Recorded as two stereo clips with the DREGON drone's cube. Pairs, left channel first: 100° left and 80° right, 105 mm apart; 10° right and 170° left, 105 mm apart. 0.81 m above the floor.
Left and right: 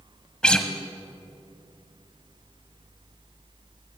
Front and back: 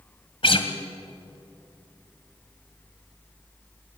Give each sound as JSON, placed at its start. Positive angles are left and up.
{"t": 0.4, "sound": "a guitar", "azimuth_deg": 20, "distance_m": 1.6}